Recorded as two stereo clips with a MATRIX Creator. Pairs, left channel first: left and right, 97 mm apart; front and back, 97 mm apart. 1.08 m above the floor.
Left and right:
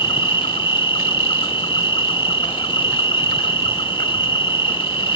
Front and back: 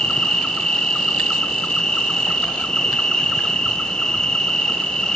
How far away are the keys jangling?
No keys jangling in this recording.